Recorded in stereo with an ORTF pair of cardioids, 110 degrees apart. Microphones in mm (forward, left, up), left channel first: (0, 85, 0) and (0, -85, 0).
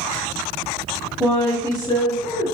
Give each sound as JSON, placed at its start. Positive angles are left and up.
{"t": 1.2, "sound": "a woman speaking", "azimuth_deg": 0, "distance_m": 1.4}